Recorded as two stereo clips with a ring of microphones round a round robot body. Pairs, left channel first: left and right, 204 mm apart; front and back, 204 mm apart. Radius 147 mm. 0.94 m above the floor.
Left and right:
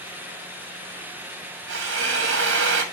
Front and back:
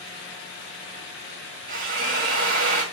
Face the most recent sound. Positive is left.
turn(degrees=-125)